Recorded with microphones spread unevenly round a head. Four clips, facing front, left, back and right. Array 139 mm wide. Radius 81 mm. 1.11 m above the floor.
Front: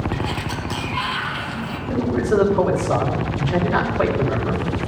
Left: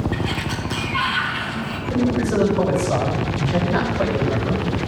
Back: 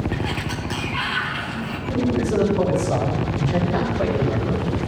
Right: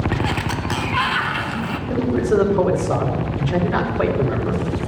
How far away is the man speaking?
About 4 m.